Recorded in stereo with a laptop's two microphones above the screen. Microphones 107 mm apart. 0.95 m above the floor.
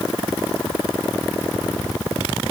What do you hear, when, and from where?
Only background noise.